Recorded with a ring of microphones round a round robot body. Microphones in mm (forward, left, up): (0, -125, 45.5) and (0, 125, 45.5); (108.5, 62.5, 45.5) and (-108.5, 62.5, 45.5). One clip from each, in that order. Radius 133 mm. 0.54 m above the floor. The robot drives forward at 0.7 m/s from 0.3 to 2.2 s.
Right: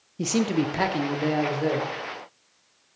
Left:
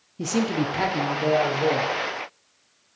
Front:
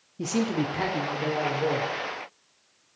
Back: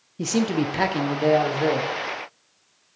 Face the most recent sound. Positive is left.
turn(degrees=-175)